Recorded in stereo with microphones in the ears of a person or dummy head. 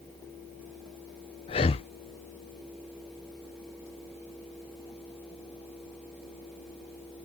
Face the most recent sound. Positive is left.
turn(degrees=25)  # may be behind; listen again after turning